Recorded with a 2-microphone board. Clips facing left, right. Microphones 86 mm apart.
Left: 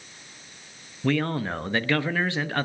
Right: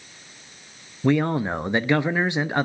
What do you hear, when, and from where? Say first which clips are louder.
1.0 s a man speaking: right 4 dB; 20° right (ahead or behind), 0.6 m